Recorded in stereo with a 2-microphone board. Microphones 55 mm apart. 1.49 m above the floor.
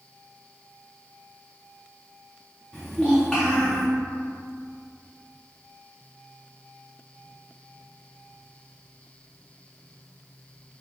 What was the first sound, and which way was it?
A child speaking, 5° left (ahead or behind).